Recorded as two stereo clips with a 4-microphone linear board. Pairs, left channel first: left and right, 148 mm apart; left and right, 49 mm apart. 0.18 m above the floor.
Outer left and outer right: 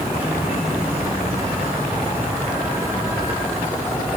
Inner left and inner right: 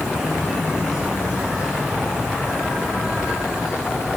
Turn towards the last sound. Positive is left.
turn(degrees=-10)  # may be behind; listen again after turning